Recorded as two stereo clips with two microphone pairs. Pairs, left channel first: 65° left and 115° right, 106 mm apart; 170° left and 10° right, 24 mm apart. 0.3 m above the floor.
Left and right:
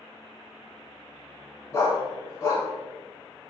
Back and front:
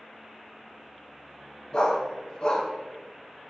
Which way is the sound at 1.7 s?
125° left.